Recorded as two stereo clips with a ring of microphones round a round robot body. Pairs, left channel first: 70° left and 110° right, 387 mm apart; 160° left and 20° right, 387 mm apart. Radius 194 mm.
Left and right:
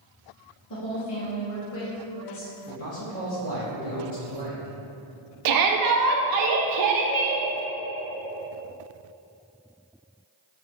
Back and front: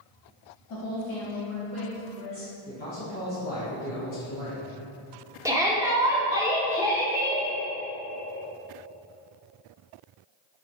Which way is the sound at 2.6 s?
100° left.